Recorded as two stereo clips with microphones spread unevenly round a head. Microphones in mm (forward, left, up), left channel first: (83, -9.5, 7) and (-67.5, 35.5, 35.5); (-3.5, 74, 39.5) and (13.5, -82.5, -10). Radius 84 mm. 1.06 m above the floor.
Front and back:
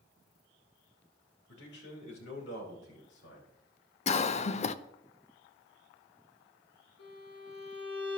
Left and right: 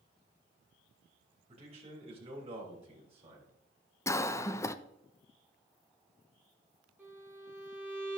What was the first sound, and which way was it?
A man speaking, 30° right.